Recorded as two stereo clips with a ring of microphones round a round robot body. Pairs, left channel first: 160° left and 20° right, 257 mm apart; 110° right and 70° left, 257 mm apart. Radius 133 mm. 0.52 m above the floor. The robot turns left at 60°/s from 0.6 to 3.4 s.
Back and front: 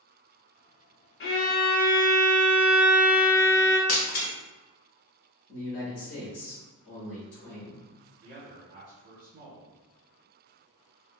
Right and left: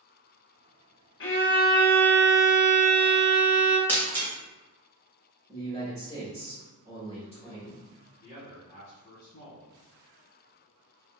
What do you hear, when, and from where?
1.2 s a violin: 155° right, 0.6 m; by 3.8 s 70° left, 0.6 m
3.9 s breaking glass: 165° left, 1.0 m
5.5 s a man speaking: 175° left, 1.3 m
8.2 s a man speaking: 55° right, 1.2 m